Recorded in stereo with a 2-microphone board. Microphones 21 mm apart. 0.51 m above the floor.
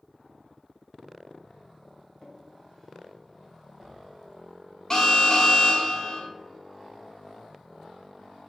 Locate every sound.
2.2 s a drawer: 15° left (ahead or behind), 1.6 m
4.9 s an alarm: 30° left (ahead or behind), 1.2 m